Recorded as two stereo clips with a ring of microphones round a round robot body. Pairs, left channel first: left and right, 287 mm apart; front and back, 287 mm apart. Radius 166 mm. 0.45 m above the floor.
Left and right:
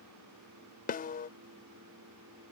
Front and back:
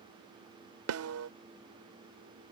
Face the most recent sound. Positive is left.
turn(degrees=150)